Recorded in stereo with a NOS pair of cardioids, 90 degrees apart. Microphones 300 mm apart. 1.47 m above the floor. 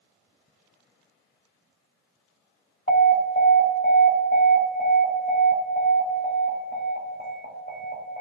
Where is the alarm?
40° left, 1.4 m.